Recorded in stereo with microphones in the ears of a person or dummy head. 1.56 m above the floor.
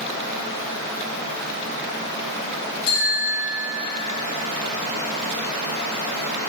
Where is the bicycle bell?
80° left, 6 m.